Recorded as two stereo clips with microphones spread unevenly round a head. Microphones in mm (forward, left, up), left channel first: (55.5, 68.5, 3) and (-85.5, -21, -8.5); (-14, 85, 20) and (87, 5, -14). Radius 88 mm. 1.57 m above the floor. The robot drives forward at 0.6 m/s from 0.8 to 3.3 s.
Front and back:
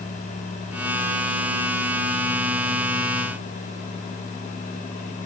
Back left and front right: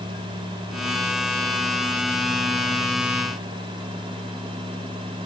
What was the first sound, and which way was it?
Only background noise.